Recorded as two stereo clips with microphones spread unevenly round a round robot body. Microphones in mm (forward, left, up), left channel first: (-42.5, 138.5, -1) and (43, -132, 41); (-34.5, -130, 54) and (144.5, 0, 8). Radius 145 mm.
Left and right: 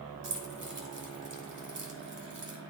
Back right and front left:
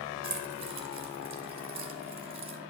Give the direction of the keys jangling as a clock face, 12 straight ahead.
1 o'clock.